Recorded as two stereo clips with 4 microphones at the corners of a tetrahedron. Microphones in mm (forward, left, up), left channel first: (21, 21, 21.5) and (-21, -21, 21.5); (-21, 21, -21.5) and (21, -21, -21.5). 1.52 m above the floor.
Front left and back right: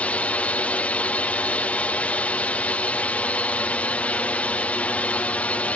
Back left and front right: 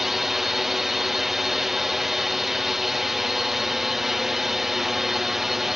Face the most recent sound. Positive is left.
turn(degrees=35)